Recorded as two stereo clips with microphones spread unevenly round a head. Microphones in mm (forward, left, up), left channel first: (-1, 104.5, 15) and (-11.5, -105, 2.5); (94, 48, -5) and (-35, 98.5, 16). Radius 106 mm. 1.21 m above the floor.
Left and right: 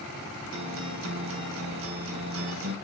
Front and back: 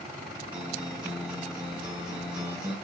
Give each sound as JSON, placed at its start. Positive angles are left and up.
{"t": 0.5, "sound": "a guitar", "azimuth_deg": -120, "distance_m": 2.0}